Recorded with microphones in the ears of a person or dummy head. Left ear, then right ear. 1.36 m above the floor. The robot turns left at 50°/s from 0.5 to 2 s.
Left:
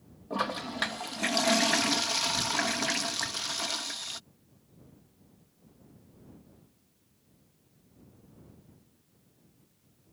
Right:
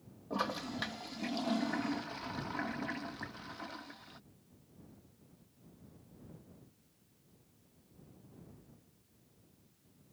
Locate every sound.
0.3 s a toilet flushing: 165° left; by 4.2 s 90° left